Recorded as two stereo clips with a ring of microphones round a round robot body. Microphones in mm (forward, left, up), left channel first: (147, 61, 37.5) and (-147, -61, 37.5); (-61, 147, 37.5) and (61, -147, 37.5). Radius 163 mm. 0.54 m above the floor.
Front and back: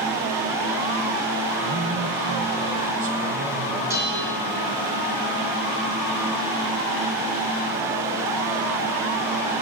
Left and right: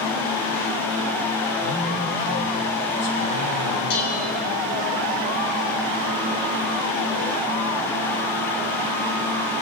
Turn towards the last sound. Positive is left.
turn(degrees=120)